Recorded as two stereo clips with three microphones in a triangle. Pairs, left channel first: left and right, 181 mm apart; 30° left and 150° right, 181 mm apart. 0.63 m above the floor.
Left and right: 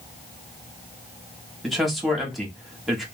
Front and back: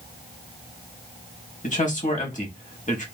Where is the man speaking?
Straight ahead, 1.0 m.